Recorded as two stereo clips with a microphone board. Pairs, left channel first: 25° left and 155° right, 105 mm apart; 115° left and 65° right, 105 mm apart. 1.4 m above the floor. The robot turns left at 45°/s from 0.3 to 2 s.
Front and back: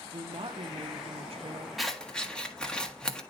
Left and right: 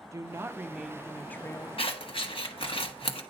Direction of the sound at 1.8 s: 110° left.